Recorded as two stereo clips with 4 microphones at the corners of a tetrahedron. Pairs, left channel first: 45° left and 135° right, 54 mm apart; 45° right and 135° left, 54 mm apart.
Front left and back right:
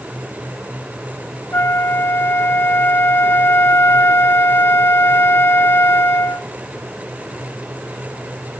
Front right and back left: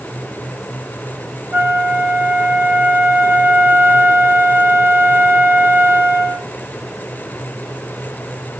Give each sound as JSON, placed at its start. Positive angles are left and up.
{"t": 1.5, "sound": "a flute", "azimuth_deg": 90, "distance_m": 2.5}